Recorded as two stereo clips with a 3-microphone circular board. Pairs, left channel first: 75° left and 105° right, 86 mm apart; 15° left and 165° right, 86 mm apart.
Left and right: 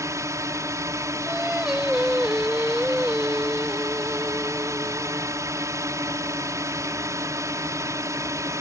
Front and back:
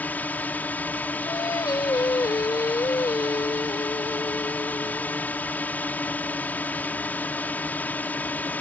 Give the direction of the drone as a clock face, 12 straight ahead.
2 o'clock.